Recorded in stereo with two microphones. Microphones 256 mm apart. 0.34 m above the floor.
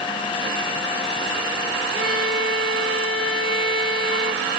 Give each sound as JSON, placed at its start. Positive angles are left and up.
{"t": 1.9, "sound": "a violin", "side_deg": -55, "distance_m": 0.9}